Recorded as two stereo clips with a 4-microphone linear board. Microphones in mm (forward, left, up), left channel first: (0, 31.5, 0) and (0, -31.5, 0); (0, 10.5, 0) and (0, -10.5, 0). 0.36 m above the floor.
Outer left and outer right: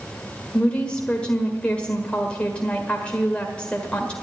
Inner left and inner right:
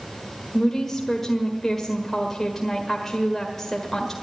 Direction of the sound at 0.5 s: 20° left (ahead or behind).